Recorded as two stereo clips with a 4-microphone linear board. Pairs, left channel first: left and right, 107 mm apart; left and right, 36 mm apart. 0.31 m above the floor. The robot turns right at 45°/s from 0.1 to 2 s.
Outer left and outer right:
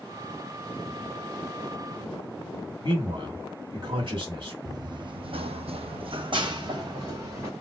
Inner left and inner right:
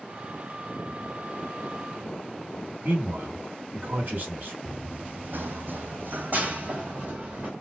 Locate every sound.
2.8 s a man speaking: 50° right (ahead or behind), 1.9 m
4.7 s running footsteps: 35° right (ahead or behind), 0.8 m; by 7.5 s 30° right (ahead or behind), 1.4 m